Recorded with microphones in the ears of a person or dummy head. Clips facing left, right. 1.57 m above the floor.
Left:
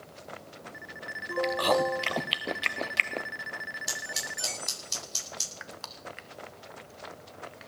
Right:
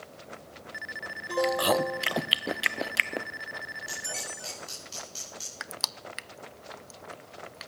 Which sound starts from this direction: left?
Scissors, at 3.9 s.